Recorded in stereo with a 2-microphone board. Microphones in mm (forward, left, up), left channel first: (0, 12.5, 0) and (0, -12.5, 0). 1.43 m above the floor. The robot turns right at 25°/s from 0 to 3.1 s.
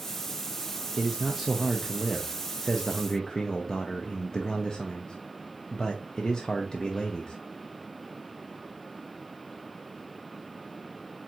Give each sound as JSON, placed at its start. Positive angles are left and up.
{"t": 1.0, "sound": "a man speaking", "azimuth_deg": -25, "distance_m": 0.5}